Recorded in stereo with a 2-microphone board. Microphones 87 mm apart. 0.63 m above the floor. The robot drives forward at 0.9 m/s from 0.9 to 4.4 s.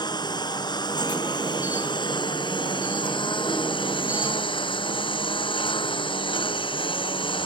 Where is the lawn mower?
55° left (ahead or behind); by 7.5 s 75° left (ahead or behind).